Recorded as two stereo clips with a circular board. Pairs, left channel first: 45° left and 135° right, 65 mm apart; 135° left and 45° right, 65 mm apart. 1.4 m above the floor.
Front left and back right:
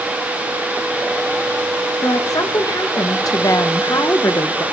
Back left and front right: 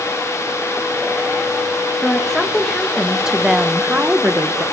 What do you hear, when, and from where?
2.0 s a woman speaking: 55° left, 2.5 m; by 4.7 s 5° left, 1.5 m